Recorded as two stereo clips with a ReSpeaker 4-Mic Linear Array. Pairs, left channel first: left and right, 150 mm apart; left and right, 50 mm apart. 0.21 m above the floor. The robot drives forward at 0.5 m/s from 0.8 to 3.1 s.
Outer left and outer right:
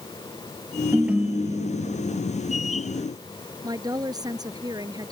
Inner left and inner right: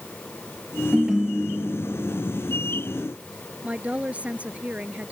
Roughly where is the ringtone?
Centre.